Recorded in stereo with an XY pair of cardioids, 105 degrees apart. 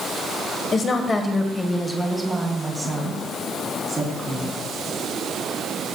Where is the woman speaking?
50° left, 1.4 m; by 4.6 s 25° right, 4 m.